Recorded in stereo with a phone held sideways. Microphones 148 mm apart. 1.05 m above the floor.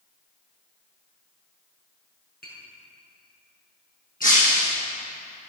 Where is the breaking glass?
60° left (ahead or behind), 5 m.